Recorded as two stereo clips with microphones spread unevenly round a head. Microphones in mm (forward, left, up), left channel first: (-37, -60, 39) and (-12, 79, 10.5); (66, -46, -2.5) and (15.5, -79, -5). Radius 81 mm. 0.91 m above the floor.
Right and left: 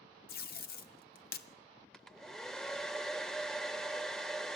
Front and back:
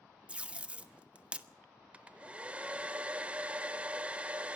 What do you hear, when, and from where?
0.3 s tape being pulled: 75° right, 1.2 m
1.9 s a hair dryer: 140° right, 0.6 m